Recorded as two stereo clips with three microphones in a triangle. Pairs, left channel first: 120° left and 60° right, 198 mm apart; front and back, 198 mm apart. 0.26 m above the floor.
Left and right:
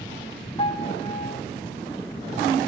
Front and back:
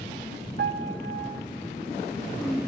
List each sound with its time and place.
0.6 s a piano: 175° right, 1.7 m